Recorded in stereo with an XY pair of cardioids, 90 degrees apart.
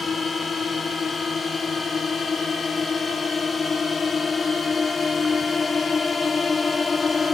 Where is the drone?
45° left; by 7.3 s 35° left.